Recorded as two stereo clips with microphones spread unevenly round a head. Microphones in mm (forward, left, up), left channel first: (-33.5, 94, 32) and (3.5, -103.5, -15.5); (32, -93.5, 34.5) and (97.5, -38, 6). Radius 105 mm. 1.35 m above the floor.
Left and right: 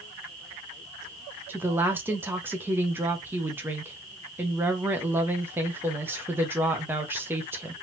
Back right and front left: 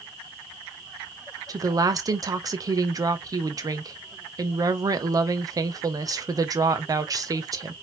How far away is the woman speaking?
About 1.1 m.